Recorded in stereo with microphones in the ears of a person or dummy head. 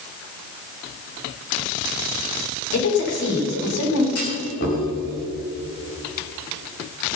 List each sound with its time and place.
2.7 s a woman speaking: 55° left (ahead or behind), 3.5 m
4.2 s a clunk: 50° left (ahead or behind), 3.5 m